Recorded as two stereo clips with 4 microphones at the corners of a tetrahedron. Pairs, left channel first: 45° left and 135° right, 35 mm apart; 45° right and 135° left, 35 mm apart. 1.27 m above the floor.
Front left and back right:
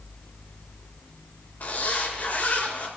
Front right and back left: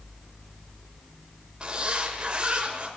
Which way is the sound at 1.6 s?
75° left.